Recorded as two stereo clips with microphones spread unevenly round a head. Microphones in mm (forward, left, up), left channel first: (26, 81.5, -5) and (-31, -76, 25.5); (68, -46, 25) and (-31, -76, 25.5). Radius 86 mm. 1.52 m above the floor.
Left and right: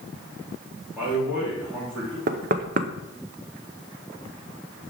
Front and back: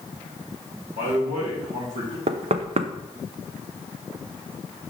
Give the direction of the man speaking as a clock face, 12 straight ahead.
6 o'clock.